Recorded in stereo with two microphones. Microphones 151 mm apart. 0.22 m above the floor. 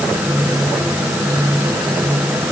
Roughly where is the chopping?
No chopping in this recording.